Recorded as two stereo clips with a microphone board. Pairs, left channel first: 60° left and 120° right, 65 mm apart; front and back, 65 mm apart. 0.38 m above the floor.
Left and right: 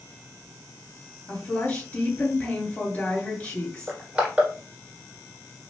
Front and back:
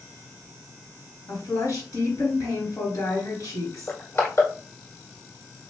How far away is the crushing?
About 1.8 m.